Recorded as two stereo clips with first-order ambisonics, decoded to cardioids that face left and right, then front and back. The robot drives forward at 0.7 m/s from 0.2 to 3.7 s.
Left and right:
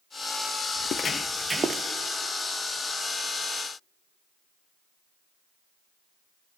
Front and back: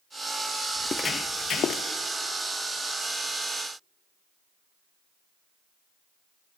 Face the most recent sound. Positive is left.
turn(degrees=-155)